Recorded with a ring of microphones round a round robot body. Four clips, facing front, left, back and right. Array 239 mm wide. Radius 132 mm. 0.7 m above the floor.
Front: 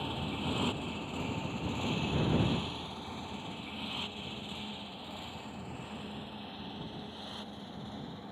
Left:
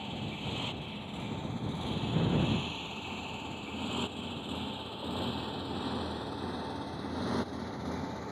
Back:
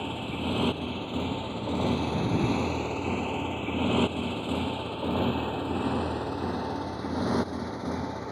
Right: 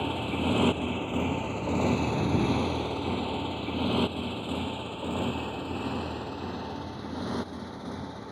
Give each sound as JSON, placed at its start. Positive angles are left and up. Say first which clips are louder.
{"t": 0.0, "sound": "a motorcycle", "louder": "right 10 dB, back 5 dB", "azimuth_deg": -110}